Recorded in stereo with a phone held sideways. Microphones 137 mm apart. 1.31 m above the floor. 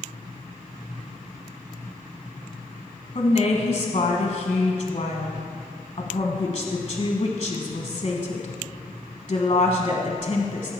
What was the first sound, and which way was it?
A woman speaking, 40° left (ahead or behind).